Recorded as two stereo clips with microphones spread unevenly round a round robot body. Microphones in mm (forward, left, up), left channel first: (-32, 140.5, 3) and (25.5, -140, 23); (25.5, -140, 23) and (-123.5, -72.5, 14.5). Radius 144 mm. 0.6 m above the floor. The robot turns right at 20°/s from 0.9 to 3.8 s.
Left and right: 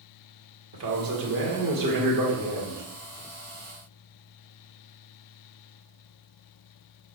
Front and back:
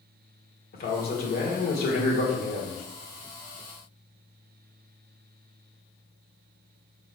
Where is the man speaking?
40° right, 1.8 m; by 2.8 s straight ahead, 1.8 m.